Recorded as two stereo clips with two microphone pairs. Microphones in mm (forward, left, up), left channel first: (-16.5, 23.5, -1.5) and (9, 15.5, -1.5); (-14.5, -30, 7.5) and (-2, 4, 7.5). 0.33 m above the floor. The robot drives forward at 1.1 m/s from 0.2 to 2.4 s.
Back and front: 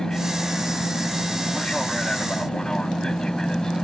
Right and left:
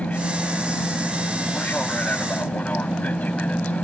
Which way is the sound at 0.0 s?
140° right.